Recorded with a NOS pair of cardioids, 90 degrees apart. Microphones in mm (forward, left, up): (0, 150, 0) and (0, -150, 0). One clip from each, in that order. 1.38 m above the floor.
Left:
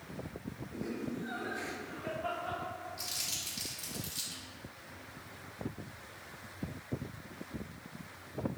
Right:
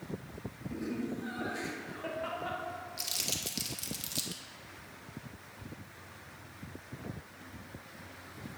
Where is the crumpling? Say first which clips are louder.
Right 3 dB; 50° right, 1.7 m.